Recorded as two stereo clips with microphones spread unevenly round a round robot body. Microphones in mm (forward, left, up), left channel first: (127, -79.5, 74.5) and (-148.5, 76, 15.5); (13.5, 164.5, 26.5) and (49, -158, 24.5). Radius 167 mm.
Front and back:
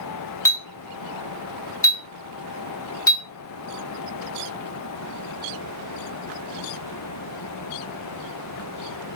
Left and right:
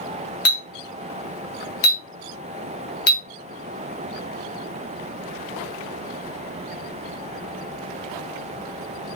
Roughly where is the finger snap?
No finger snap in this recording.